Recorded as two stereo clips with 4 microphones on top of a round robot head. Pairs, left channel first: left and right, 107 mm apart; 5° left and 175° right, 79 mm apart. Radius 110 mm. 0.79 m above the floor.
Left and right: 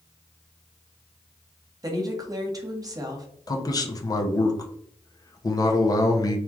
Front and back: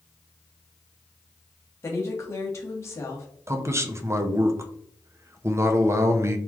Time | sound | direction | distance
1.8 | a woman speaking | 40° right | 1.2 m
3.5 | a man speaking | 135° left | 0.7 m